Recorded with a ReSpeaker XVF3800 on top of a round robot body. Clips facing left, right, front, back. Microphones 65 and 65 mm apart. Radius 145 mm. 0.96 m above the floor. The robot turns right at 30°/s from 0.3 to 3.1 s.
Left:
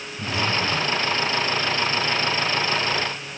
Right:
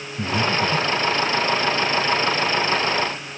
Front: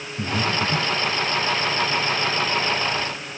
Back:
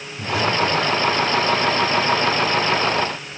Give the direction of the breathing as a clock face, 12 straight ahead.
2 o'clock.